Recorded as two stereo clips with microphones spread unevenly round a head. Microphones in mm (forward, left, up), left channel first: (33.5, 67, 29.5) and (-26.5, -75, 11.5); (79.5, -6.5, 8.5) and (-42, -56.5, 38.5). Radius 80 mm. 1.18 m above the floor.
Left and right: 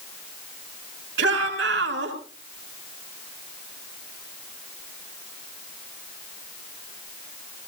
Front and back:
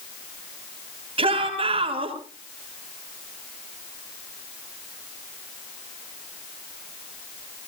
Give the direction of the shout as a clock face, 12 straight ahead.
4 o'clock.